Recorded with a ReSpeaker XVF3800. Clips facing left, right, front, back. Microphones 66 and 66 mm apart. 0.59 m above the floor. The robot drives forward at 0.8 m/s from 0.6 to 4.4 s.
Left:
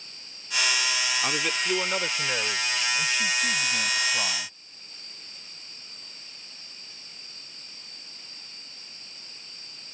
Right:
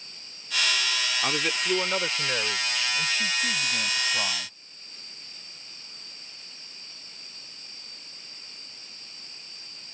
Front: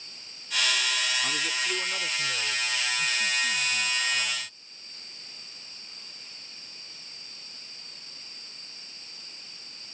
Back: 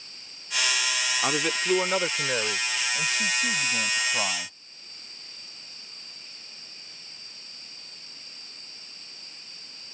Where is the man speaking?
170° right; by 4.5 s straight behind.